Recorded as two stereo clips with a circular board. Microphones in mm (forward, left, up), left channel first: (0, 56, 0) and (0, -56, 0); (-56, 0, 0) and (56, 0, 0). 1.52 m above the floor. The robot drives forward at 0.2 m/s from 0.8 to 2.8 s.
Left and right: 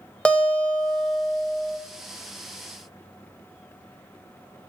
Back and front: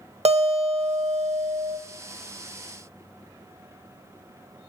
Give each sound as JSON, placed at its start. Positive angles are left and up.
{"t": 0.2, "sound": "a guitar", "azimuth_deg": 10, "distance_m": 0.7}